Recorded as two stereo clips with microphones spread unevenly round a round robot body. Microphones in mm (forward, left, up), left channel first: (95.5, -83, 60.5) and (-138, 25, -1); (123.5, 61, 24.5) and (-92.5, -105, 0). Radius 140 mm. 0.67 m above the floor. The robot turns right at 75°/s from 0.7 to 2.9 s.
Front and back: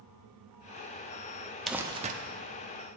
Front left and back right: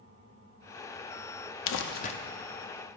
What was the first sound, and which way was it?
Crumpling, 75° left.